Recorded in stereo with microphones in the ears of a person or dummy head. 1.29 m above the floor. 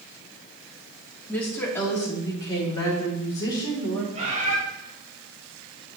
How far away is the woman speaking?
About 2 m.